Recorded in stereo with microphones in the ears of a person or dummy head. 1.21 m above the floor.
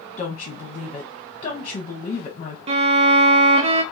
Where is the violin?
35° right (ahead or behind), 0.5 m.